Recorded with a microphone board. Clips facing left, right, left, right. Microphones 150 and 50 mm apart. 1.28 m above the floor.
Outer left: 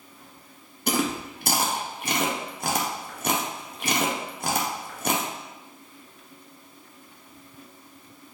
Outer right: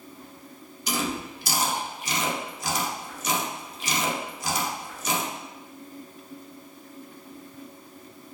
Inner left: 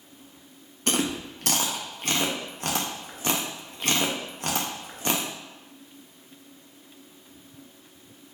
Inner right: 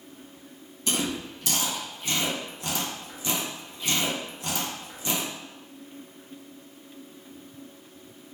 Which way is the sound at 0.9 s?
55° left (ahead or behind).